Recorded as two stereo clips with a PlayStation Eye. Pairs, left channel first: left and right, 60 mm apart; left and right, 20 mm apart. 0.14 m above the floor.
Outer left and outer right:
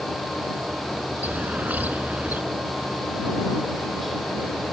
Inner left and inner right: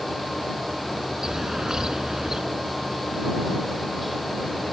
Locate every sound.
1.2 s a bird: 30° right (ahead or behind)